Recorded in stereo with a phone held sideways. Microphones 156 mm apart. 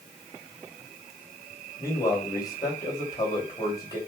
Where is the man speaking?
25° left (ahead or behind), 2.5 m.